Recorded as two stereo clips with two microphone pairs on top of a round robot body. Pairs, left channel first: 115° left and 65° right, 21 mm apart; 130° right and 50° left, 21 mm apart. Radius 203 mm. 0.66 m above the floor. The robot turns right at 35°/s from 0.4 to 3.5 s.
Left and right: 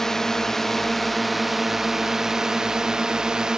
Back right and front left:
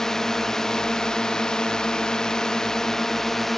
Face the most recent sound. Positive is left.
turn(degrees=-70)